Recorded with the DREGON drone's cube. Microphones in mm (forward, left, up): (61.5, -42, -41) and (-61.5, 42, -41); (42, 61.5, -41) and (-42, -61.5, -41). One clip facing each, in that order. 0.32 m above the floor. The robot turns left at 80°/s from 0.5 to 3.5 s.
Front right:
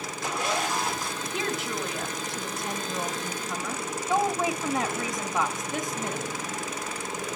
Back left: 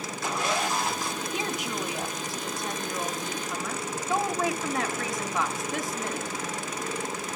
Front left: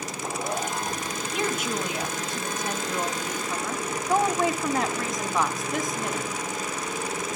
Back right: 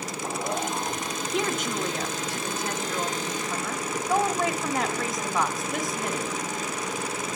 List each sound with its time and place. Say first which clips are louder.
1.3 s a woman speaking: front right 3 dB, even; 140° left, 1.4 m; by 6.3 s 35° right, 1.4 m